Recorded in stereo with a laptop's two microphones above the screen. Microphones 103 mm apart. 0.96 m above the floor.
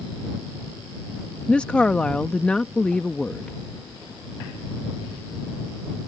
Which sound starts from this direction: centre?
A woman speaking, at 1.5 s.